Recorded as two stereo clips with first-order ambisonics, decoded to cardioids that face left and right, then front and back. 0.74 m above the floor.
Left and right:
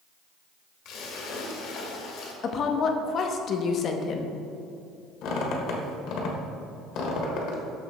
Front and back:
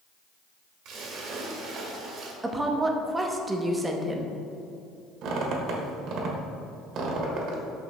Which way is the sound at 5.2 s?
130° left.